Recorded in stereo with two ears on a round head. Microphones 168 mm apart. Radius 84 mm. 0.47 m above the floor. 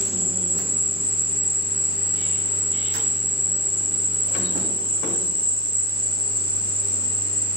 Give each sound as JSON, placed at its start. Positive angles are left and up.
{"t": 0.0, "sound": "an insect", "side_deg": -10, "distance_m": 1.1}